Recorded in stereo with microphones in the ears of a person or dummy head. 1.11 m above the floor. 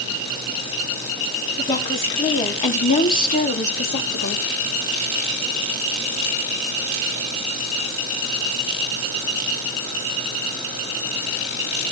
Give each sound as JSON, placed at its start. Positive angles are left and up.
{"t": 1.6, "sound": "a woman speaking", "side_deg": 25, "distance_m": 3.0}